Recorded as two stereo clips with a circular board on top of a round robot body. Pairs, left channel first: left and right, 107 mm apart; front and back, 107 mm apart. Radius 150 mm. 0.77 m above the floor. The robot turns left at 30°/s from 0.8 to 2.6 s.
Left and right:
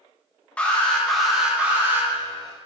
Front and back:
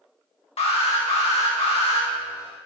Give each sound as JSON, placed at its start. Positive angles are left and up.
{"t": 0.6, "sound": "an alarm", "azimuth_deg": 10, "distance_m": 2.0}